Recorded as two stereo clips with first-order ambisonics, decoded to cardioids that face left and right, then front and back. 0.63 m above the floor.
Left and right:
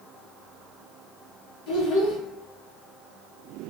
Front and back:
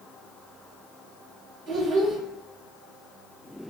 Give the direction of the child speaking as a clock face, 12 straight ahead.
8 o'clock.